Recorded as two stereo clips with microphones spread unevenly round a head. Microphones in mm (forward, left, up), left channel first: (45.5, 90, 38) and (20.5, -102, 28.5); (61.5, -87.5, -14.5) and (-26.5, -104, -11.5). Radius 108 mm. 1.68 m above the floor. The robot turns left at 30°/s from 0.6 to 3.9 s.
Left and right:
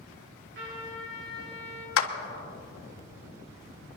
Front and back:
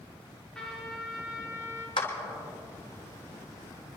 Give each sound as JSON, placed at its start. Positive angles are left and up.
{"t": 0.6, "sound": "a trumpet", "azimuth_deg": -70, "distance_m": 4.0}
{"t": 2.0, "sound": "a clap", "azimuth_deg": 75, "distance_m": 1.4}